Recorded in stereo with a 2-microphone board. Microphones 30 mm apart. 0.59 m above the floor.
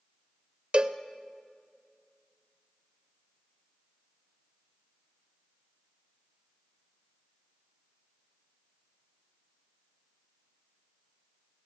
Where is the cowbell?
40° right (ahead or behind), 0.8 m.